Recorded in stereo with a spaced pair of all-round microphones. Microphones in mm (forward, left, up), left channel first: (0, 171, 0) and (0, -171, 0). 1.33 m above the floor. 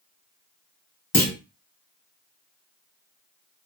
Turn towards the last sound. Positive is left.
turn(degrees=80)